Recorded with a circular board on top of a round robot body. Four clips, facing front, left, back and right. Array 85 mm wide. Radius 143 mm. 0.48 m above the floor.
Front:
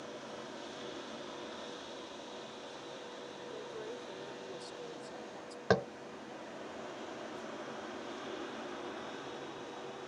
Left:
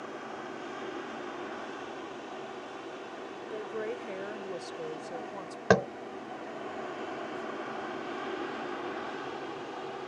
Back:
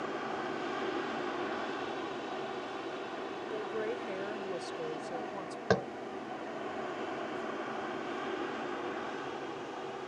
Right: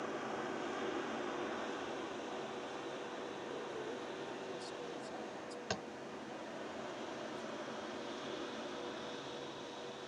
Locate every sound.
0.0 s an aircraft: 175° left; by 10.1 s 120° left
3.5 s a woman speaking: 130° left
5.7 s tapping: 90° left